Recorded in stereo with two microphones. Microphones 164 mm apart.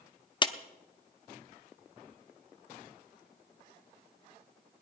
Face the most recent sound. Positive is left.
turn(degrees=30)  # may be behind; listen again after turning